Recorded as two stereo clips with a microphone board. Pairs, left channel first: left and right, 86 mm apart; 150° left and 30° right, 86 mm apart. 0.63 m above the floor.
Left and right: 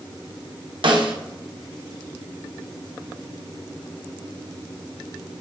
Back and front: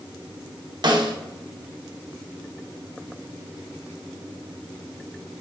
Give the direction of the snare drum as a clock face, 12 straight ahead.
2 o'clock.